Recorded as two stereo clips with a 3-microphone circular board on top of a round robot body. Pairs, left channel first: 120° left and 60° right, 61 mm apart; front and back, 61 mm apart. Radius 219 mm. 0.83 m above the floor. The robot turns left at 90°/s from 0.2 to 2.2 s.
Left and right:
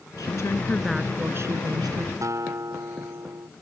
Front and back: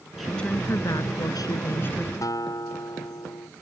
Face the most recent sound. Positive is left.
turn(degrees=-25)